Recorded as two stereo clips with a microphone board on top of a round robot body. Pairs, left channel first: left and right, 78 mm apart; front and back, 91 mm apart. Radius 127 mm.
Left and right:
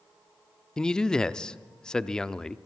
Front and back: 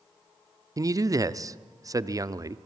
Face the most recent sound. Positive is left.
turn(degrees=165)